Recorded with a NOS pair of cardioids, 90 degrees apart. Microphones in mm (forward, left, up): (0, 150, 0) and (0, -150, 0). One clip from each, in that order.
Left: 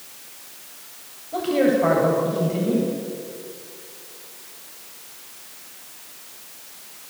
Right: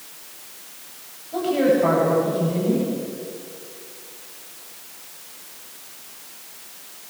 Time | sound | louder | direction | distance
1.3 | a man speaking | right 1 dB | 30° left | 9.5 m